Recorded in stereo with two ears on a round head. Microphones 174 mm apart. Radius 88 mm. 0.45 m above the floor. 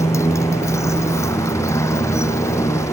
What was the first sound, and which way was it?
A motorcycle, 15° left (ahead or behind).